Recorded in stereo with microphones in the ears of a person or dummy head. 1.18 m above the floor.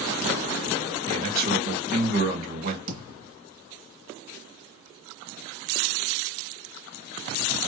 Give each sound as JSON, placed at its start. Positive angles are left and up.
{"t": 1.1, "sound": "a man speaking", "side_deg": -55, "distance_m": 2.5}
{"t": 2.9, "sound": "a thud", "side_deg": -70, "distance_m": 2.5}